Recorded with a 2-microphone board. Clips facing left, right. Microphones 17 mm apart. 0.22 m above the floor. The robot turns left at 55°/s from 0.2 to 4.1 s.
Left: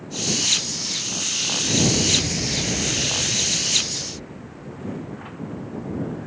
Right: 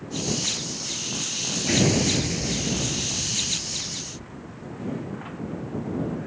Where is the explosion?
150° right; by 4.9 s 75° left.